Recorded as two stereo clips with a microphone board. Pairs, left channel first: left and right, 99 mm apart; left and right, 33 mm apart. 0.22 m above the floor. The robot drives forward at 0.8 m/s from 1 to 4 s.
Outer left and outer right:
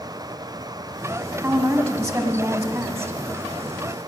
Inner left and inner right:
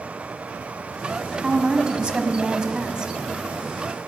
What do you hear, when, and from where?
1.4 s a woman speaking: 25° right (ahead or behind), 1.3 m